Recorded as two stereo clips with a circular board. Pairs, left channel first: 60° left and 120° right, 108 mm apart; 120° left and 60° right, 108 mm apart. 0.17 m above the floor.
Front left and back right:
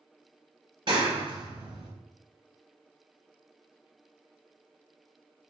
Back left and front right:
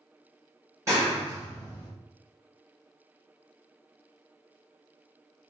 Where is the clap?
110° right, 1.9 m.